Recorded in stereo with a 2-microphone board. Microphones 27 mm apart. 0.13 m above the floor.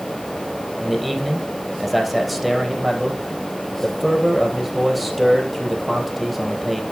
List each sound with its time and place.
0.8 s a man speaking: centre (ahead or behind), 3.5 m